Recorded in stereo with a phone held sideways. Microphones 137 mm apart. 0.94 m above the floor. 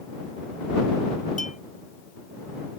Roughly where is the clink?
Left.